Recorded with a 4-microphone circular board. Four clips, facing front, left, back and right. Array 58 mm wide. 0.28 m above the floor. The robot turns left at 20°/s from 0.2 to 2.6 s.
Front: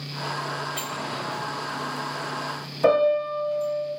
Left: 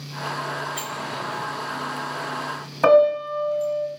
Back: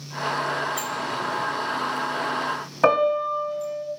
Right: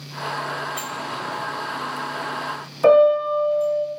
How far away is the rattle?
No rattle in this recording.